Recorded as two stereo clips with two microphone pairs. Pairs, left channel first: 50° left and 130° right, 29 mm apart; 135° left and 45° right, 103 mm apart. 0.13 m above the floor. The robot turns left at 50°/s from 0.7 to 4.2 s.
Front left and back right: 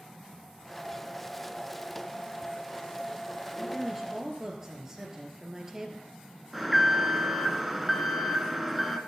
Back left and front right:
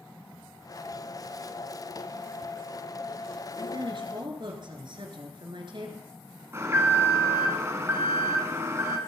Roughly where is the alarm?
Ahead right.